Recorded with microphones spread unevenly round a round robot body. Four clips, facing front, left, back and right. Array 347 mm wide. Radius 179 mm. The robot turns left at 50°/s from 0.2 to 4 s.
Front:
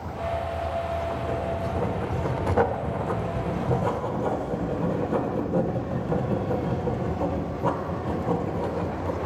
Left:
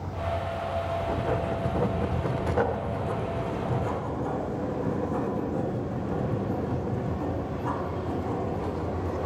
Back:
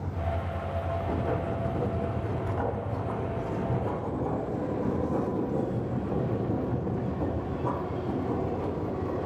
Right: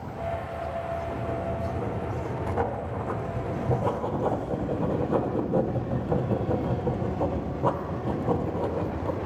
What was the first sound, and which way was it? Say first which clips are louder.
Writing: left 3 dB, front 2 dB; 105° left.